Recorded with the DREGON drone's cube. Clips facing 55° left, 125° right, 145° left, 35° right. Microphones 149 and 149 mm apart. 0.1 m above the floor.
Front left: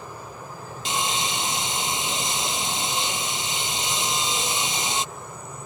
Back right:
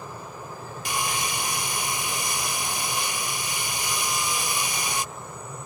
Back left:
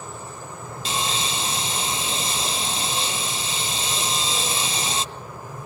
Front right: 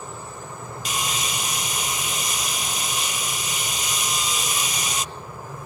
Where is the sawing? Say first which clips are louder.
Front left 2 dB, back left 2 dB; 105° left.